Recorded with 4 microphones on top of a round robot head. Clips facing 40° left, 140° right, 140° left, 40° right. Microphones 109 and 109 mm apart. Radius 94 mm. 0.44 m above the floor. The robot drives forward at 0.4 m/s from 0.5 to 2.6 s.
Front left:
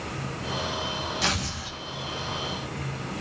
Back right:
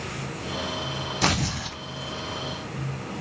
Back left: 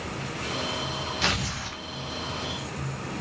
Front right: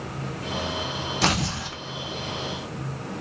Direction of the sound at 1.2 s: 95° right.